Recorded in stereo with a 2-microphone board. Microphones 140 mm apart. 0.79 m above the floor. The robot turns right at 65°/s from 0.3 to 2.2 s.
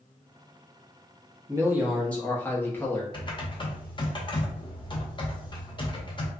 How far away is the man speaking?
About 0.8 m.